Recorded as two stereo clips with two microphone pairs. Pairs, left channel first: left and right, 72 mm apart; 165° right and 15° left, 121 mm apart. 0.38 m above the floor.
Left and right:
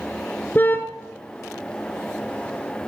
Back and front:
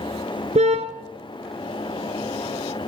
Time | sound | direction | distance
0.6 | a car horn | 30° left | 3 m